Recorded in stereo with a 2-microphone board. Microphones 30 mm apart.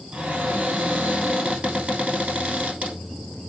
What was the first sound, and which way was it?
A cupboard door, 50° right (ahead or behind).